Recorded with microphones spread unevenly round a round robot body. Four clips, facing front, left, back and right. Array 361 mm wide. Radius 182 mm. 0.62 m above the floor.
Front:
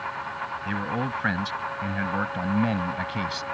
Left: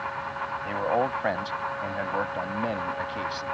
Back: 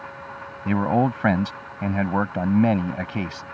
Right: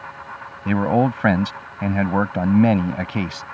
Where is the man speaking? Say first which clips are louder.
Right 8 dB, back 10 dB; 115° right; by 3.4 s 95° right.